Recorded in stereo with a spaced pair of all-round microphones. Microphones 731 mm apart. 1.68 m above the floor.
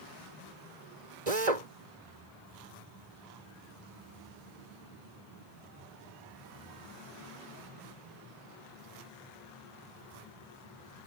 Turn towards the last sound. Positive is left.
turn(degrees=-65)  # may be behind; listen again after turning